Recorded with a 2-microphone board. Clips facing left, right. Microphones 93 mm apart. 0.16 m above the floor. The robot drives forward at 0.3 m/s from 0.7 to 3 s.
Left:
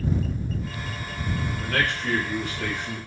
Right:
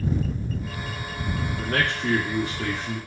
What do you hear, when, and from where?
1.6 s a man speaking: 30° right (ahead or behind), 1.6 m; by 3.0 s 35° right (ahead or behind), 1.5 m